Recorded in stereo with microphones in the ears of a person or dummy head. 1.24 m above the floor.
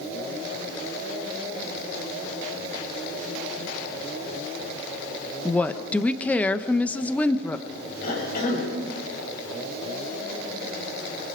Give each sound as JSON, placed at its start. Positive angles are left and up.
{"t": 5.5, "sound": "a woman speaking", "side_deg": 5, "distance_m": 0.9}
{"t": 8.0, "sound": "a cough", "side_deg": 55, "distance_m": 6.0}